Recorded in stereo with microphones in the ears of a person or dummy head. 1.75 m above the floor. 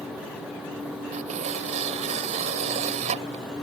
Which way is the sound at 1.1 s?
40° right (ahead or behind).